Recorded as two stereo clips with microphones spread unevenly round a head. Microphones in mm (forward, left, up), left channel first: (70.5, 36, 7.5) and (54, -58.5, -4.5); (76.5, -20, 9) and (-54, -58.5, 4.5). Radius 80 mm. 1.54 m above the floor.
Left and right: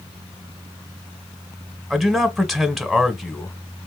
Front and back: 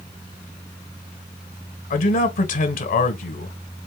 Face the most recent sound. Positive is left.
turn(degrees=-10)